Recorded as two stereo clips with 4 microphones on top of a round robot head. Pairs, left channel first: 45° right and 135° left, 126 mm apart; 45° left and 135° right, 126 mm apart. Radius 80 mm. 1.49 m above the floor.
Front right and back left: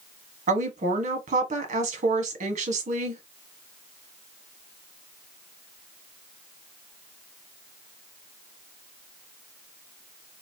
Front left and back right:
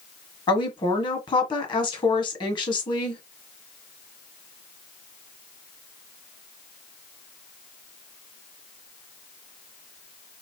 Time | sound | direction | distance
0.5 | a woman speaking | 105° left | 1.4 m